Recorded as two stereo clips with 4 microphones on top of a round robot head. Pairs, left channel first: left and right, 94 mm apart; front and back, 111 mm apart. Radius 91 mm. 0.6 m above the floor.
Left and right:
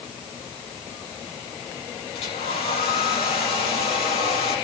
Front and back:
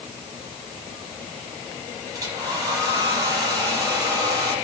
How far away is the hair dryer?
About 6 m.